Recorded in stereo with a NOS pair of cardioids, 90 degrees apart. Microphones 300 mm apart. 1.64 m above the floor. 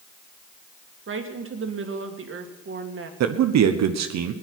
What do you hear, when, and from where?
1.1 s a woman speaking: 45° right, 1.9 m
3.2 s a man speaking: 65° right, 1.0 m